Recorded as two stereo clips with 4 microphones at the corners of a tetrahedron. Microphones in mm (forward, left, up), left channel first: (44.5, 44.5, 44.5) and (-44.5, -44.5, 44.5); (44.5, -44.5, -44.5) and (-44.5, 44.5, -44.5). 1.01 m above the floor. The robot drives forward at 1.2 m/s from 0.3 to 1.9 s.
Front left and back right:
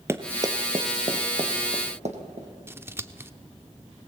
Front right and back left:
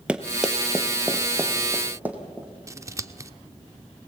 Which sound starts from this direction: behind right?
Running footsteps, at 0.1 s.